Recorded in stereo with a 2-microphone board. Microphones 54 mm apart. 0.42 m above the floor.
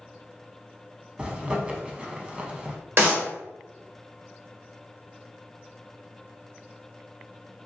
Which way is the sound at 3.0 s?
50° right (ahead or behind).